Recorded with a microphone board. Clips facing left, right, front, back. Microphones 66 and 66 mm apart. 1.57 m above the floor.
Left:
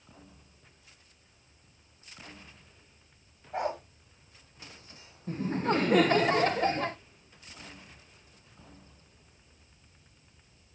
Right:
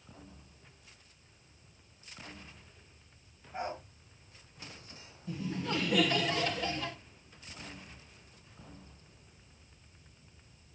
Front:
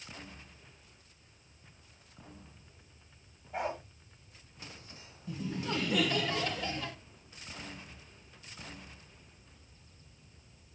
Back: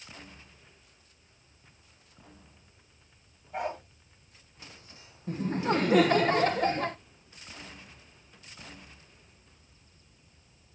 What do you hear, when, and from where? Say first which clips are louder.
3.5 s a dog barking: left 6 dB, back 2 dB; 85° left, 3 m
5.3 s laughter: left 7 dB, back 8 dB; 135° left, 0.7 m